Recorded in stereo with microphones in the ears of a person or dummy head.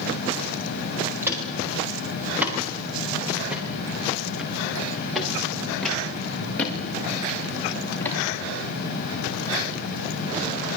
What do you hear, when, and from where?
1.2 s footsteps: 15° right (ahead or behind), 9.5 m; by 8.2 s 15° left (ahead or behind), 7 m